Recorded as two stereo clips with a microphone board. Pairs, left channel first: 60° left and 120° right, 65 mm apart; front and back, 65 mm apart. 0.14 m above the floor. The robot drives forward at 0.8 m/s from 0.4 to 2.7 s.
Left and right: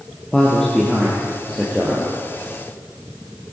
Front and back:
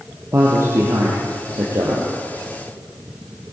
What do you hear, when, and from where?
0.3 s a man speaking: 140° left, 3 m; by 2.1 s 155° left, 4 m